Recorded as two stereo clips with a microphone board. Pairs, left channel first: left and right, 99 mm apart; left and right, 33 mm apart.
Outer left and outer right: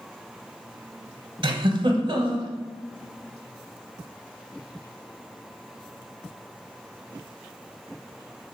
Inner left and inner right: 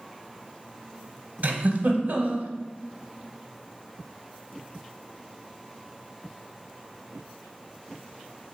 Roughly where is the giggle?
Right.